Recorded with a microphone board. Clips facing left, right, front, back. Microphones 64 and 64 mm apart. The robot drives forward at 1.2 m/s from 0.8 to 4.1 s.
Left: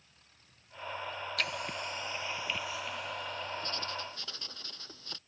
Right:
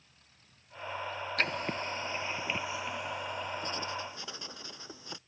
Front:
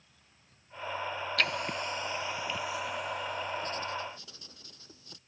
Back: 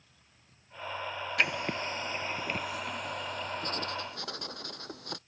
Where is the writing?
120° right; by 5.2 s 165° right.